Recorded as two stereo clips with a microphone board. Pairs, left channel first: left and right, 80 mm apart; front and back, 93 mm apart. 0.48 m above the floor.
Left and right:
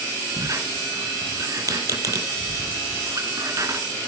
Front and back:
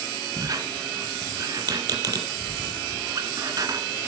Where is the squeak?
135° right, 1.7 m.